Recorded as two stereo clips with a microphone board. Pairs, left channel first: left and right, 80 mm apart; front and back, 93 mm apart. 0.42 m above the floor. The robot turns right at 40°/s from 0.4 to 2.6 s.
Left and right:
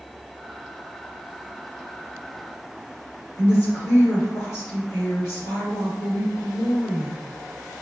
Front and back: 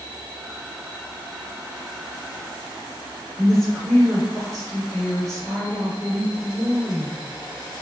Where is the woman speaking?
80° left, 1.8 m.